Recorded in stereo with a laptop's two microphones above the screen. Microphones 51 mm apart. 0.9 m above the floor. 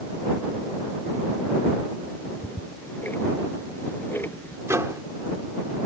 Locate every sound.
2.1 s ticking: 40° left (ahead or behind)
4.7 s a microwave: 70° right (ahead or behind)